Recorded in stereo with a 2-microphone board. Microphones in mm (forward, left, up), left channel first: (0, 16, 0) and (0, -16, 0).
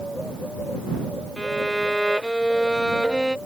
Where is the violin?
5° left (ahead or behind).